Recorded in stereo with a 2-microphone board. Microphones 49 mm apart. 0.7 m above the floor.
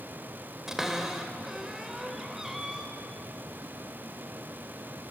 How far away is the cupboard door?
About 3 m.